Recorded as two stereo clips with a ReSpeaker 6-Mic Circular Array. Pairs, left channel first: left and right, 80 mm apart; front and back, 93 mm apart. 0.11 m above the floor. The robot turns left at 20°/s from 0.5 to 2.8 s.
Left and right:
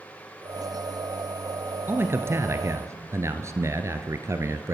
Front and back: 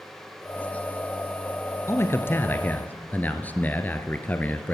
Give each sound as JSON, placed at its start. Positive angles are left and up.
{"t": 1.9, "sound": "a man speaking", "azimuth_deg": -45, "distance_m": 1.4}